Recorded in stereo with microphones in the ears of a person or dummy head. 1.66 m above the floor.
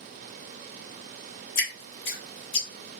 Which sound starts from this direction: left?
Dripping, at 1.6 s.